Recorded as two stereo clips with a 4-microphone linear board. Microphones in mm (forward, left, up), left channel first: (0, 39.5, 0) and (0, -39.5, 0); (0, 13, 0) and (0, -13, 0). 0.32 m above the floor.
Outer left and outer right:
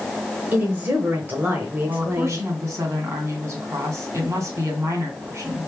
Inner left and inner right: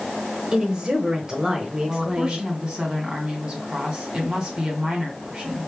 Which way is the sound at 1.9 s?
35° right (ahead or behind).